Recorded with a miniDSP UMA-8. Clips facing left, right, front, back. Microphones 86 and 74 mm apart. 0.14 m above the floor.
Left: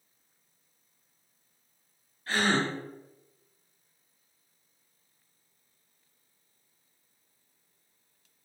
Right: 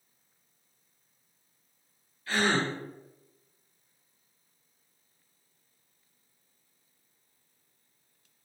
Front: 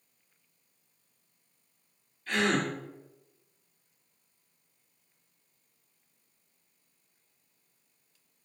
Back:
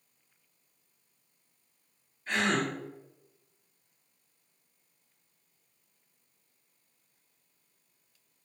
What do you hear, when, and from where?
2.3 s a gasp: 120° left, 1.8 m